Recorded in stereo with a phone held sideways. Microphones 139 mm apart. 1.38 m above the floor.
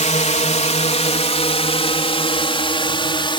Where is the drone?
60° left (ahead or behind); by 3.4 s 35° left (ahead or behind).